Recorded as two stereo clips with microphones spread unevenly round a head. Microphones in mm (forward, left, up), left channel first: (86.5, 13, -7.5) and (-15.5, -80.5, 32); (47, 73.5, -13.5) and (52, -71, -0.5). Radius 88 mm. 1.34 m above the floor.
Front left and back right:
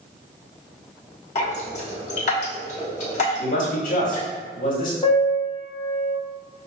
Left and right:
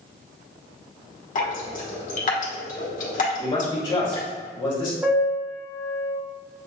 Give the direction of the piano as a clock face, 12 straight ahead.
1 o'clock.